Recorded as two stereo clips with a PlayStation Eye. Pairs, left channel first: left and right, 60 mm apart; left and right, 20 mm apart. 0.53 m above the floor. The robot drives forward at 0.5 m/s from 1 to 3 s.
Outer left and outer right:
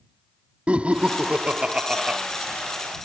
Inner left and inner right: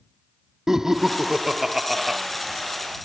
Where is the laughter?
20° right (ahead or behind); by 2.2 s 15° right (ahead or behind).